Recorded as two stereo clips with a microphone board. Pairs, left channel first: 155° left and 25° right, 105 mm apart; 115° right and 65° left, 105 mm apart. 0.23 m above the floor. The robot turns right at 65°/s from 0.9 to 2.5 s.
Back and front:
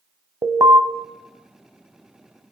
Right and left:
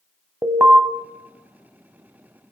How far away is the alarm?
About 0.7 m.